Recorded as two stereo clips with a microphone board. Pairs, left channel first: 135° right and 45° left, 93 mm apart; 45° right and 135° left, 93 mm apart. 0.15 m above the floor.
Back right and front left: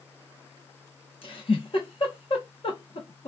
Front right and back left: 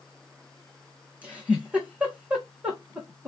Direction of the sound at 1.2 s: 150° right.